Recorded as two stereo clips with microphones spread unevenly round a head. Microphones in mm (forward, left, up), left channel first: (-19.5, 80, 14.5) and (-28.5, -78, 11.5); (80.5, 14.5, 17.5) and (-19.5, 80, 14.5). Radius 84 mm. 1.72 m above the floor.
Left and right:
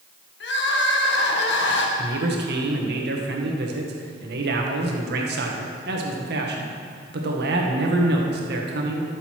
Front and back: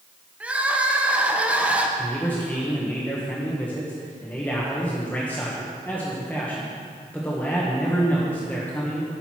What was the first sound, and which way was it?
Crying, 65° left.